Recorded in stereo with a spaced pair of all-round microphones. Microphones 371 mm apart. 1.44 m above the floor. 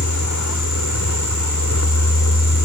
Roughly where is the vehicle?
Left.